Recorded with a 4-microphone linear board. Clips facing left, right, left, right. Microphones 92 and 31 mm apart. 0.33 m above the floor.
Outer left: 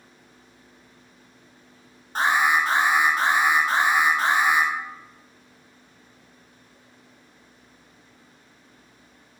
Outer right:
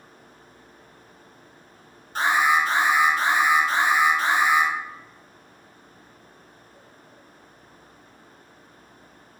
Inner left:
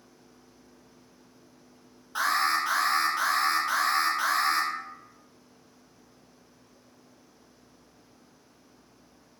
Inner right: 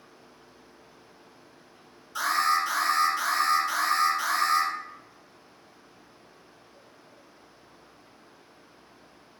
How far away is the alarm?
About 1.2 m.